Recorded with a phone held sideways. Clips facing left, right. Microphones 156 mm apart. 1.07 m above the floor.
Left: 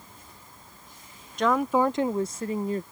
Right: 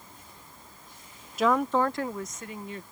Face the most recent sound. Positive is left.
turn(degrees=40)  # may be behind; listen again after turning